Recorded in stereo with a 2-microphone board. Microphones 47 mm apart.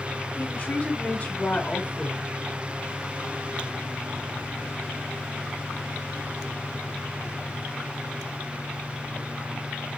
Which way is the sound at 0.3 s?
30° left (ahead or behind).